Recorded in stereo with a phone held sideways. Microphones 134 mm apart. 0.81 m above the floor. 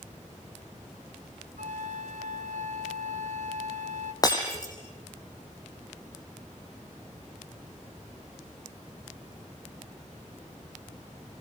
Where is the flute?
65° right (ahead or behind), 1.4 m.